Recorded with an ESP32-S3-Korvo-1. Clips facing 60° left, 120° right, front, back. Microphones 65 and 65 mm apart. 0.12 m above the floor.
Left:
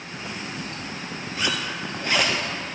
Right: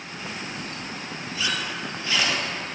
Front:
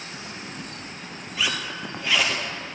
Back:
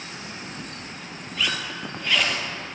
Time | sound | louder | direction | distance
1.4 | a zipper | left 1 dB, even | 85° left | 1.7 m